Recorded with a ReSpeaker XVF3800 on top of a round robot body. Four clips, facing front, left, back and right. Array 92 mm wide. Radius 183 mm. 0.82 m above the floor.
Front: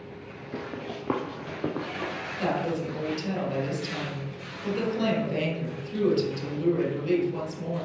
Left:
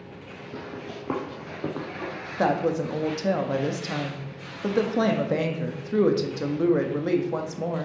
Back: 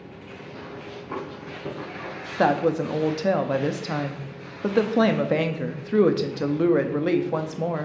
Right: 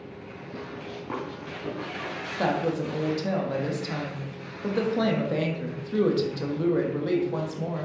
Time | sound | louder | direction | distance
0.5 | running footsteps | left 1 dB, front 5 dB | 5° left | 1.0 m
2.4 | a woman speaking | left 3 dB, back 8 dB | 165° left | 1.5 m